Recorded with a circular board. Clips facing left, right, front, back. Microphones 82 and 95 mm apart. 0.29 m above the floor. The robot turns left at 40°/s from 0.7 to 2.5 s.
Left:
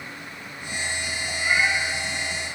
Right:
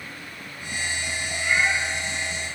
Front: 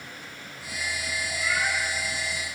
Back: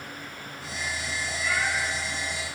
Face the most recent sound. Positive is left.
turn(degrees=105)